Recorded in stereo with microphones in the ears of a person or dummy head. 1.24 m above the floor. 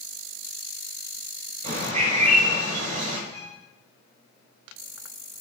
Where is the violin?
65° right (ahead or behind), 5.5 m.